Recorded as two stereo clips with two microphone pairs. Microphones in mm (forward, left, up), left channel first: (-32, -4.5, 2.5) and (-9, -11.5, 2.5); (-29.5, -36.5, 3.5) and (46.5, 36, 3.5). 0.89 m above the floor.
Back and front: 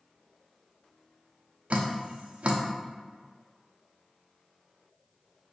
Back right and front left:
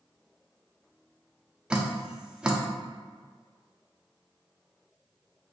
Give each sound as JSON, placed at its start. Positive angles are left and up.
{"t": 1.7, "sound": "dripping", "azimuth_deg": -35, "distance_m": 0.5}